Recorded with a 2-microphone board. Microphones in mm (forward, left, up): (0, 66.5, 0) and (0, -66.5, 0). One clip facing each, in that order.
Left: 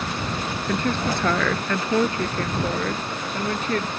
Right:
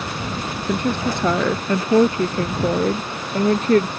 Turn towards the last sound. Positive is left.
turn(degrees=-40)  # may be behind; listen again after turning